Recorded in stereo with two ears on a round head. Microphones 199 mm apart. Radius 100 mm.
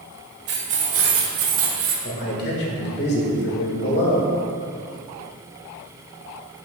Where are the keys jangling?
50° right (ahead or behind), 1.6 m; by 1.9 s 65° right (ahead or behind), 1.5 m.